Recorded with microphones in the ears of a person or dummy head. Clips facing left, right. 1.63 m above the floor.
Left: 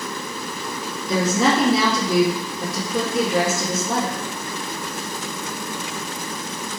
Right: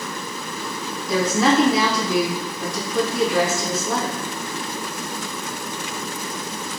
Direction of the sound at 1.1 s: 80° left.